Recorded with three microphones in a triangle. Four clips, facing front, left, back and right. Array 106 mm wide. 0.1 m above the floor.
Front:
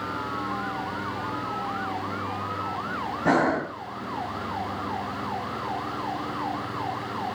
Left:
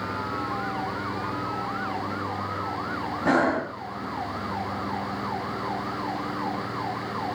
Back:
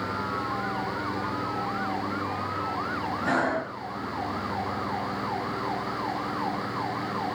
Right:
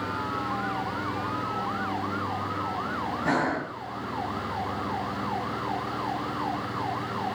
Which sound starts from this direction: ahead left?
Breathing, at 3.2 s.